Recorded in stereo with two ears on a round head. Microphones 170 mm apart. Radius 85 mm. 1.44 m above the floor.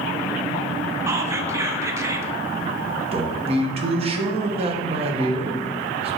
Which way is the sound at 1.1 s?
15° right (ahead or behind).